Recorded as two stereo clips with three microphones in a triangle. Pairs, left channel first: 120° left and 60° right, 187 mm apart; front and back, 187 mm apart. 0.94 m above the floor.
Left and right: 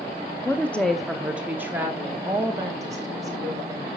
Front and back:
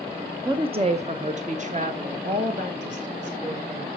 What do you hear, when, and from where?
0.5 s a woman speaking: 175° left, 0.8 m; by 3.9 s 130° right, 3 m